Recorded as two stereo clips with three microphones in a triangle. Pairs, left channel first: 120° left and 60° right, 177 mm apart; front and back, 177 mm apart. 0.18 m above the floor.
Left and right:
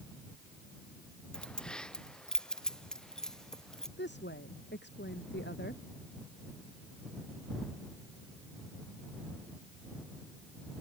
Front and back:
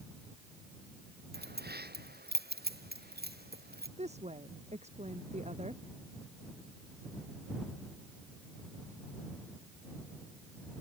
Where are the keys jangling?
155° right.